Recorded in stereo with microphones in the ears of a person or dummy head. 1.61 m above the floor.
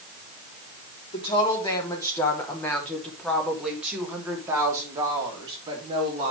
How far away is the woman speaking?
About 3.5 m.